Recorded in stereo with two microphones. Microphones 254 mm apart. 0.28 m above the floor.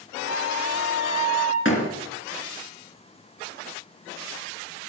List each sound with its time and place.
0.2 s a flute: 50° right (ahead or behind), 7.5 m
1.6 s a door slam: 50° left (ahead or behind), 2.5 m